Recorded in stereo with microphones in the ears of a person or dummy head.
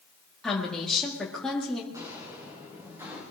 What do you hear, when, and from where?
0.4 s a woman speaking: 5° left (ahead or behind), 2 m
1.9 s footsteps: 20° right (ahead or behind), 7 m; by 3.2 s 10° right (ahead or behind), 8 m